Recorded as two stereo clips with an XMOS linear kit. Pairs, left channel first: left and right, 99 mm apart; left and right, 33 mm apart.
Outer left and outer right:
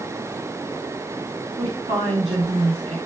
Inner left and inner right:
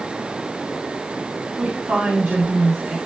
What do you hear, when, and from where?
1.6 s a woman speaking: 70° right (ahead or behind), 4 m